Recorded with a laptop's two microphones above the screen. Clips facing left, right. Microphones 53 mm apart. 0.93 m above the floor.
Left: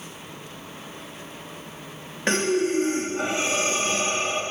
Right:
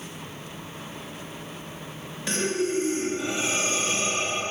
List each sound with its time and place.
2.3 s breathing: 50° left (ahead or behind), 1.2 m